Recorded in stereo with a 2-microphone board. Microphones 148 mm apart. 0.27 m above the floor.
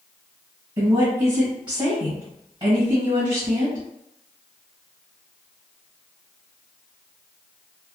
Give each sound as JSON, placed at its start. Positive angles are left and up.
{"t": 0.8, "sound": "a woman speaking", "side_deg": -30, "distance_m": 1.5}